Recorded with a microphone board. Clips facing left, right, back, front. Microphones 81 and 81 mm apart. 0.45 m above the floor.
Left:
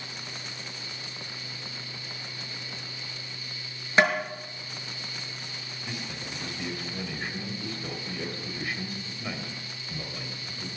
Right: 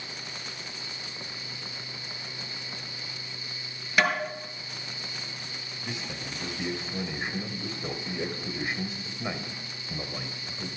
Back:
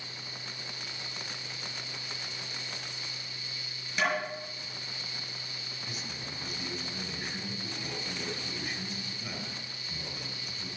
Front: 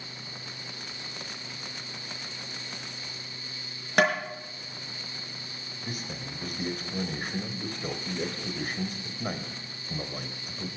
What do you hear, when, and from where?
4.0 s tapping: 30° left, 5.5 m
5.8 s a man speaking: 25° right, 1.9 m